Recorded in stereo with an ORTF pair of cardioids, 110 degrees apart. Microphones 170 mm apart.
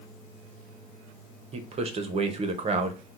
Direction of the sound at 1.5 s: 40° right.